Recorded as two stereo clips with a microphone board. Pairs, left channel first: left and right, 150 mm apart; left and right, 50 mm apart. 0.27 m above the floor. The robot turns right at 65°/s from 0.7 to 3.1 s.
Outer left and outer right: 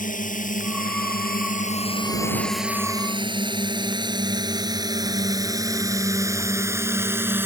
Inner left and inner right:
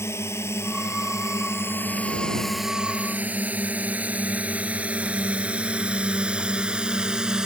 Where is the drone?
65° left (ahead or behind); by 7.5 s 15° right (ahead or behind).